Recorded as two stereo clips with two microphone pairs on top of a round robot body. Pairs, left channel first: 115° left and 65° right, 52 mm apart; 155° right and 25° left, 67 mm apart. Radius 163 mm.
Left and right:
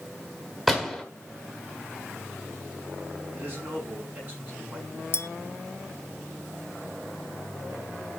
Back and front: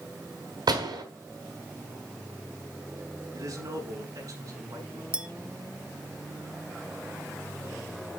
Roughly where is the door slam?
Ahead.